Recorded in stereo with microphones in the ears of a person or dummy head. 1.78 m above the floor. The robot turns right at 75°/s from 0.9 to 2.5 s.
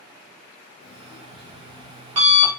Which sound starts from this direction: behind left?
An alarm clock, at 0.8 s.